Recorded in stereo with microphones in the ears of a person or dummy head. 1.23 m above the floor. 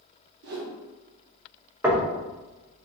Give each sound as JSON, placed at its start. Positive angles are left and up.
{"t": 0.4, "sound": "a whoosh", "side_deg": -50, "distance_m": 0.8}
{"t": 1.8, "sound": "knocking", "side_deg": -10, "distance_m": 0.5}